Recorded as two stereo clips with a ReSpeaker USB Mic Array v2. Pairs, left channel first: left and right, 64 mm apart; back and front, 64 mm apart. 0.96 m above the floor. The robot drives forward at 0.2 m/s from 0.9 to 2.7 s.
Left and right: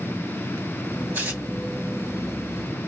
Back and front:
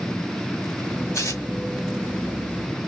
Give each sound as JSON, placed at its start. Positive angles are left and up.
{"t": 1.1, "sound": "tearing paper", "azimuth_deg": -150, "distance_m": 2.0}